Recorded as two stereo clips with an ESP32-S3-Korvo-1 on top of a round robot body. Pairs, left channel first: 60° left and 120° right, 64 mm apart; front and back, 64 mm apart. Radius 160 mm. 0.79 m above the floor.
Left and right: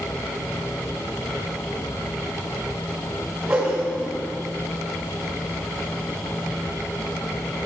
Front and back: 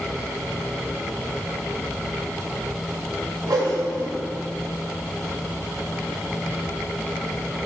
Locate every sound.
3.5 s a whoosh: 165° left, 1.7 m